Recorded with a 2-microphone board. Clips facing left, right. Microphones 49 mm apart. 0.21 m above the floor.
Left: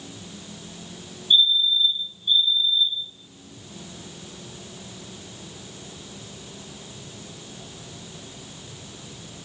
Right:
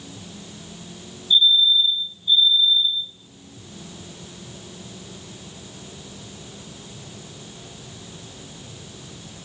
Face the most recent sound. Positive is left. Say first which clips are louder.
# right 3 dB
turn(degrees=65)  # may be behind; listen again after turning